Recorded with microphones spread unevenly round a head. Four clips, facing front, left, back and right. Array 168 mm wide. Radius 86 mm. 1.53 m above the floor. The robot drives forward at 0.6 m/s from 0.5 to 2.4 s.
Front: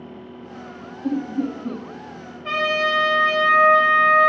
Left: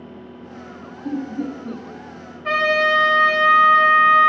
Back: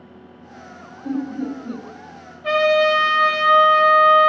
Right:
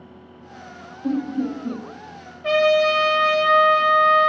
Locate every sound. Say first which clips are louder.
1.0 s laughter: right 2 dB, front 1 dB; 45° right, 4 m; by 1.8 s 50° right, 4 m
2.4 s a trumpet: right 2 dB, back 6 dB; 115° right, 2.5 m